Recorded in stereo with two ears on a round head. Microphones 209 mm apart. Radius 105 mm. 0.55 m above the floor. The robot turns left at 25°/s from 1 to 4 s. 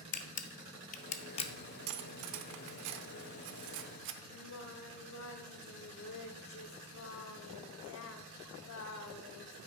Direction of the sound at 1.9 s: 60° right (ahead or behind).